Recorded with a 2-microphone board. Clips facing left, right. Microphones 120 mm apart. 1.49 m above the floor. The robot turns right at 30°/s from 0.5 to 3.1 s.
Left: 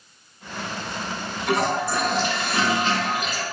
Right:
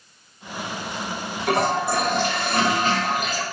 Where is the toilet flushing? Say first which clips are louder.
Right 1 dB; 110° right, 2.0 m; by 3.4 s 60° right, 2.0 m.